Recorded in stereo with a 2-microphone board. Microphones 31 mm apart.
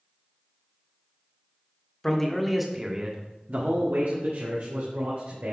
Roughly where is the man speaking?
Centre.